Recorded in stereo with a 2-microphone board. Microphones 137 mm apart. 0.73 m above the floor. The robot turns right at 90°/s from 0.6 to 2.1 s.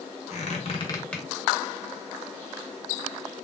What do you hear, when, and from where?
0.3 s a squeak: 55° left (ahead or behind), 0.9 m; by 1.2 s centre (ahead or behind), 0.9 m